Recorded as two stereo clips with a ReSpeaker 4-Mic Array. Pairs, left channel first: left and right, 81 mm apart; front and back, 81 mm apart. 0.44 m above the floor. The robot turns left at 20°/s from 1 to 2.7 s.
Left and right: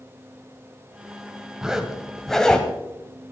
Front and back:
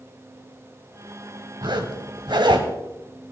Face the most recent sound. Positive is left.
turn(degrees=165)